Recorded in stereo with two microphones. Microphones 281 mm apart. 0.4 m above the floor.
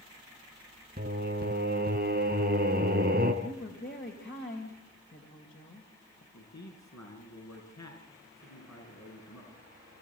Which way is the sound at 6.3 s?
75° left (ahead or behind).